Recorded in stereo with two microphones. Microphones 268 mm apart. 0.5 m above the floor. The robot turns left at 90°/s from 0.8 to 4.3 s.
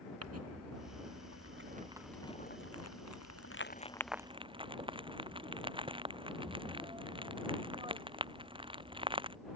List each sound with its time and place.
0.2 s crumpling: 65° right (ahead or behind); by 9.4 s 20° right (ahead or behind)